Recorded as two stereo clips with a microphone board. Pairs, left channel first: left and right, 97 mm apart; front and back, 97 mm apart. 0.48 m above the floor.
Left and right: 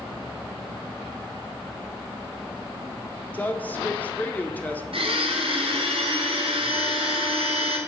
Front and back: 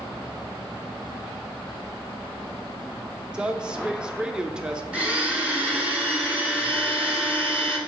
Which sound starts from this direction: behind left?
A woman speaking, at 3.3 s.